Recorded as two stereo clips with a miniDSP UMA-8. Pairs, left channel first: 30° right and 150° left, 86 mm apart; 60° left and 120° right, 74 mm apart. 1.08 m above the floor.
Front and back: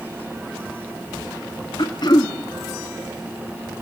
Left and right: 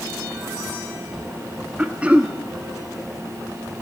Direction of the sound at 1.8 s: 50° right.